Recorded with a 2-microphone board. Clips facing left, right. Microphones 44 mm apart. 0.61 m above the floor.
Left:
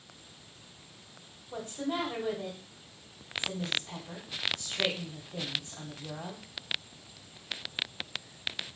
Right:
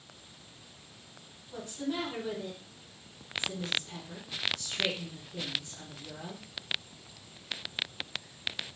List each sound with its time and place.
1.5 s a woman speaking: 45° left (ahead or behind), 1.2 m